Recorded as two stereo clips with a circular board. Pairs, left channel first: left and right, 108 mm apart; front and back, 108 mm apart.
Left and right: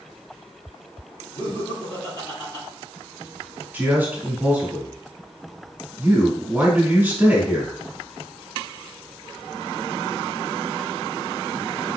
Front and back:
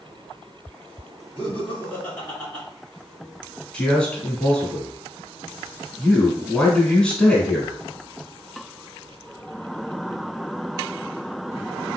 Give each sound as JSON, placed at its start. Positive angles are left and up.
{"t": 1.4, "sound": "laughter", "azimuth_deg": 65, "distance_m": 1.6}
{"t": 3.7, "sound": "a man speaking", "azimuth_deg": -60, "distance_m": 1.0}